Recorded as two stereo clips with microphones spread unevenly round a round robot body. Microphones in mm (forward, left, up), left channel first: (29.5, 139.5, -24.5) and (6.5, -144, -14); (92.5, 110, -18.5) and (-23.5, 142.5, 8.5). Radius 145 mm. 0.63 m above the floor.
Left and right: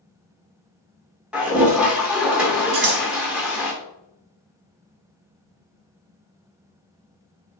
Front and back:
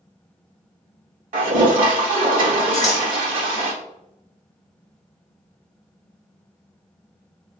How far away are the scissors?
About 1.2 m.